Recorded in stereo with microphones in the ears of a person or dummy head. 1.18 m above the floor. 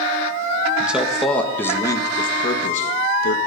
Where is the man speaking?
10° right (ahead or behind), 1.7 m; by 3.4 s 50° left (ahead or behind), 1.8 m.